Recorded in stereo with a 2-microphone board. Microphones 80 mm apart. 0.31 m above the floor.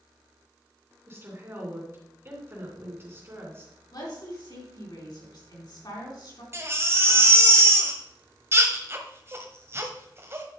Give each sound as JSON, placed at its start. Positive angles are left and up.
{"t": 1.1, "sound": "a woman speaking", "side_deg": -30, "distance_m": 3.0}
{"t": 3.9, "sound": "a woman speaking", "side_deg": 60, "distance_m": 3.5}
{"t": 6.5, "sound": "a baby crying", "side_deg": -30, "distance_m": 1.4}